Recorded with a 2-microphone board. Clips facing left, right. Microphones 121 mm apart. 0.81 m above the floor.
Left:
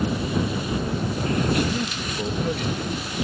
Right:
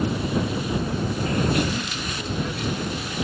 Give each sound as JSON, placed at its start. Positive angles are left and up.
{"t": 1.7, "sound": "a man speaking", "side_deg": 35}